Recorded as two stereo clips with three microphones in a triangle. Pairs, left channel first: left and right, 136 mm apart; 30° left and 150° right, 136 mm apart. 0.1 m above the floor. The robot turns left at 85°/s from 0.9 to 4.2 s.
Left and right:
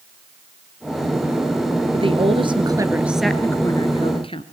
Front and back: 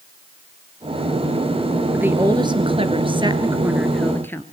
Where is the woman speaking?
70° right, 1.9 m; by 4.4 s 95° left, 1.9 m.